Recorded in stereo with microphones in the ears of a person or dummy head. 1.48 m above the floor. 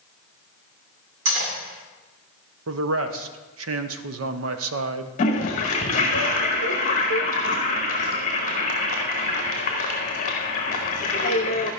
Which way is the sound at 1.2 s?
70° right (ahead or behind).